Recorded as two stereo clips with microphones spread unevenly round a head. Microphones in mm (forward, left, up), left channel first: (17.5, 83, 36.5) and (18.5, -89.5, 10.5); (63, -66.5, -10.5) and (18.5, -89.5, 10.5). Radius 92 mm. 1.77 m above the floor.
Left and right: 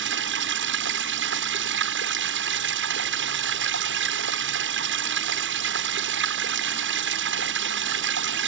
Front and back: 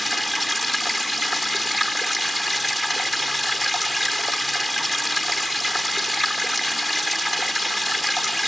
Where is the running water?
65° right.